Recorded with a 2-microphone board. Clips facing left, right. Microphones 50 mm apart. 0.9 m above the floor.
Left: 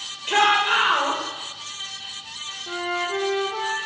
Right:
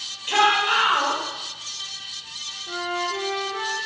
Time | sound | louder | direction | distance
0.3 | a shout | left 1 dB | 25° left (ahead or behind) | 1.0 m
2.7 | a flute | left 1 dB | 60° left (ahead or behind) | 0.7 m